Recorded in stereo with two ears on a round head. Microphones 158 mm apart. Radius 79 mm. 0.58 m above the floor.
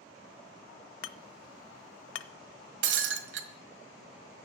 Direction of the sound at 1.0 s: 80° left.